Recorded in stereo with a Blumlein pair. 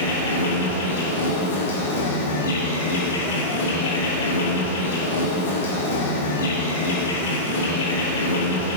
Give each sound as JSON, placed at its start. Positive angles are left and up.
{"t": 0.0, "sound": "an insect", "azimuth_deg": 65, "distance_m": 2.0}